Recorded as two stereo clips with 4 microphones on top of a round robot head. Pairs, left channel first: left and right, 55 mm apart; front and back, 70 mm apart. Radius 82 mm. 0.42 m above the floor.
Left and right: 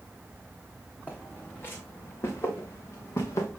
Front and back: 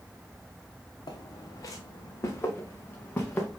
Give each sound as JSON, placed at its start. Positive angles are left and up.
{"t": 1.1, "sound": "footsteps", "azimuth_deg": 30, "distance_m": 1.7}